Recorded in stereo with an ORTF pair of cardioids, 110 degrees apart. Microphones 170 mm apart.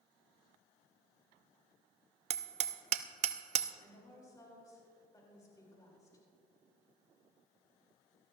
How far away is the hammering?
About 0.7 m.